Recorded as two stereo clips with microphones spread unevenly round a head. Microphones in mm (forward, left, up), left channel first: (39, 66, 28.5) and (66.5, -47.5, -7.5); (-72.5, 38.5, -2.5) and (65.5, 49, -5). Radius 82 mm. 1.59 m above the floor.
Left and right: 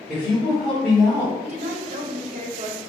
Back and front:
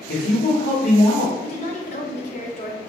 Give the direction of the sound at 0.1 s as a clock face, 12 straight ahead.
6 o'clock.